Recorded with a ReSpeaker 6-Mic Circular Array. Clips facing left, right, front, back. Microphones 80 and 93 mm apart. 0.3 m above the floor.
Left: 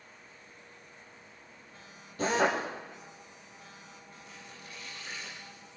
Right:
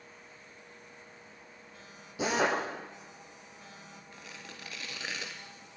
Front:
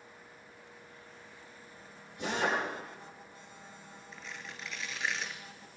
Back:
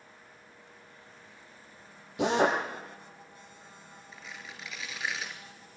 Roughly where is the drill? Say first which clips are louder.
Left 1 dB, back 7 dB; behind.